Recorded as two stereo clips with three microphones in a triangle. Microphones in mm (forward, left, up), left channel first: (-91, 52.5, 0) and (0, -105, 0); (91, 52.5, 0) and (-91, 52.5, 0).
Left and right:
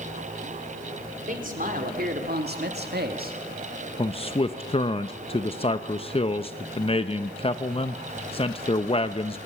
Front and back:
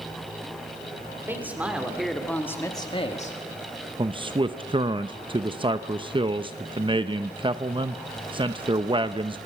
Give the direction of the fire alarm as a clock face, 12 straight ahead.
No fire alarm in this recording.